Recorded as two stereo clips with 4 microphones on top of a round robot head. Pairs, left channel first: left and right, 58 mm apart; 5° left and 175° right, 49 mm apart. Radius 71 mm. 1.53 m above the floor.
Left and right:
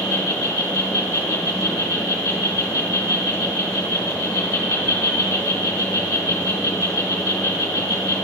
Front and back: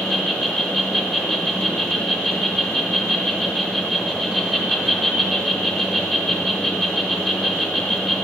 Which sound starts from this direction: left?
An insect, at 0.0 s.